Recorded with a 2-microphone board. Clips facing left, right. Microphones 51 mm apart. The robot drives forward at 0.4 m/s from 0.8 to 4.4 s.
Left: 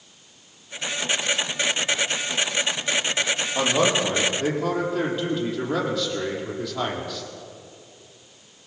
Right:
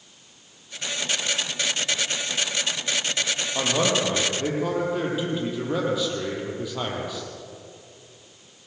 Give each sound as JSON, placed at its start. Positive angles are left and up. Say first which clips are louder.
{"t": 3.5, "sound": "a man speaking", "louder": "left 2 dB", "side_deg": -10, "distance_m": 5.5}